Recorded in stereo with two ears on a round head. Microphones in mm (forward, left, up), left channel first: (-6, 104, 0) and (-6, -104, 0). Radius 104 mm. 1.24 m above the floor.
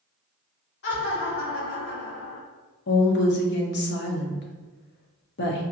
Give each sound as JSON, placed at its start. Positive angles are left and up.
{"t": 0.8, "sound": "laughter", "side_deg": 50, "distance_m": 1.5}
{"t": 2.9, "sound": "a woman speaking", "side_deg": 50, "distance_m": 0.8}